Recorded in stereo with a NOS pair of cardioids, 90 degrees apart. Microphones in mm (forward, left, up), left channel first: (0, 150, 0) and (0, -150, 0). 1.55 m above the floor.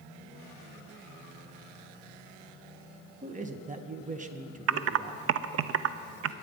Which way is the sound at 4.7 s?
55° right.